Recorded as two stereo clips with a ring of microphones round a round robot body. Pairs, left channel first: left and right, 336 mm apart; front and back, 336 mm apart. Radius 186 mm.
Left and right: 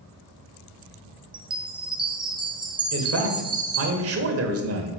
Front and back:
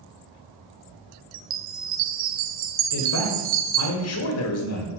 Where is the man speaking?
45° right, 1.7 m.